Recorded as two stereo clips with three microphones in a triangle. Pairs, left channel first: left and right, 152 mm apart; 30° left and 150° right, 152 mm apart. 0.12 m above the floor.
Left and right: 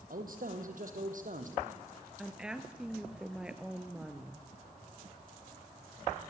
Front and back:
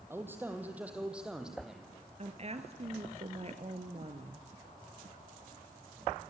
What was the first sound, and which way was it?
A man speaking, 75° right.